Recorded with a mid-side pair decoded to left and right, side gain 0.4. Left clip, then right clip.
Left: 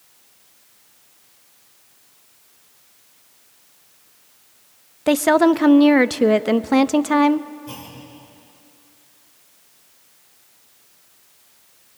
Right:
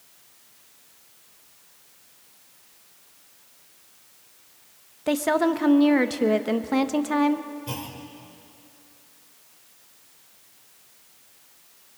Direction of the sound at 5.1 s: 50° left.